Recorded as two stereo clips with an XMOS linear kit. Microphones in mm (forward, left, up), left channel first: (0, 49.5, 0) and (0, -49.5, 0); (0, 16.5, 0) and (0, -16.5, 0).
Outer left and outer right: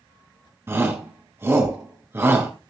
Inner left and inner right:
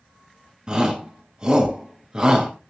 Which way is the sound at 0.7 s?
25° right (ahead or behind).